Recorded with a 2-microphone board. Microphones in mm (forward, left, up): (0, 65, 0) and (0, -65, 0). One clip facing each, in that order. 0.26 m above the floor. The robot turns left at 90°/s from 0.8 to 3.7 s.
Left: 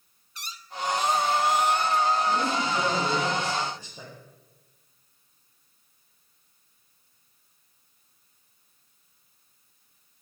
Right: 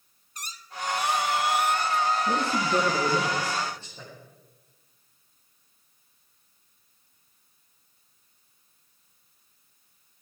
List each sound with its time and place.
0.3 s a squeak: 45° right, 0.7 m; by 3.3 s 95° left, 0.7 m
2.3 s a man speaking: 65° right, 5.5 m; by 4.1 s 165° left, 5.5 m